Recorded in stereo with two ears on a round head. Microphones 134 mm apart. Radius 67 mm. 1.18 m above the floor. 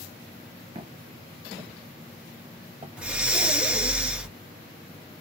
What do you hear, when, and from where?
0.8 s footsteps: 30° right (ahead or behind), 1.3 m; by 2.9 s 10° right (ahead or behind), 1.6 m
3.0 s breathing: 10° right (ahead or behind), 0.8 m